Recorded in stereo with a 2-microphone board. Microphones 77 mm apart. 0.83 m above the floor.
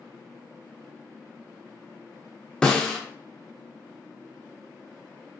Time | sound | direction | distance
2.6 | a snare drum | 10° left (ahead or behind) | 0.5 m